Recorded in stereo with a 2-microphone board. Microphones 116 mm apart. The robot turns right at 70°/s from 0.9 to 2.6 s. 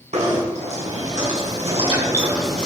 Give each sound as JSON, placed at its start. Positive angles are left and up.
{"t": 0.1, "sound": "knocking", "azimuth_deg": -110, "distance_m": 6.5}